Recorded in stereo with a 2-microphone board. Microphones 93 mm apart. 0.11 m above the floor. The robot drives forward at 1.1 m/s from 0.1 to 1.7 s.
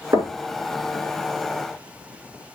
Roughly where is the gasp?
I don't hear a gasp.